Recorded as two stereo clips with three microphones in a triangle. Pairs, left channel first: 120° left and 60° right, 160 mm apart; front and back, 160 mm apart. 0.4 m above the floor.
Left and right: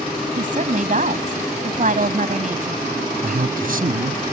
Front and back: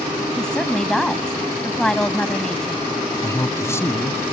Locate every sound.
0.4 s a woman speaking: 85° right
3.2 s a man speaking: 70° right